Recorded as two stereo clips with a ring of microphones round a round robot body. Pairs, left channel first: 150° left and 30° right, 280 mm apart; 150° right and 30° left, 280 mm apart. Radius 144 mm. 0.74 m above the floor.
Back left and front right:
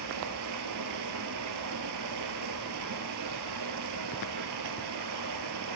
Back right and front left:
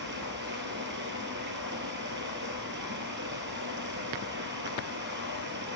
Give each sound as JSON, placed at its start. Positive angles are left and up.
{"t": 0.0, "sound": "running water", "azimuth_deg": -15, "distance_m": 1.2}